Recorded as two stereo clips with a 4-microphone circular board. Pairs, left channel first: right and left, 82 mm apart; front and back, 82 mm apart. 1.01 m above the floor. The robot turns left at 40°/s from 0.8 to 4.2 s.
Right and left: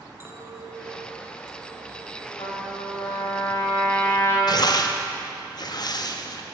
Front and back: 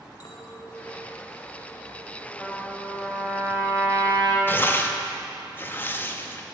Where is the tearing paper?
65° right, 0.6 m.